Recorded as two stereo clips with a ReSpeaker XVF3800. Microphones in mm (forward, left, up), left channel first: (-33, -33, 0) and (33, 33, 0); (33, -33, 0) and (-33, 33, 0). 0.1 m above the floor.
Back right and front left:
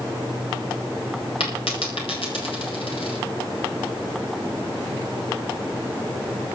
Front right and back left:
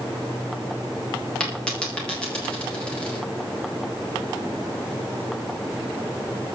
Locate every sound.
1.4 s a dropped coin: 125° right, 8 m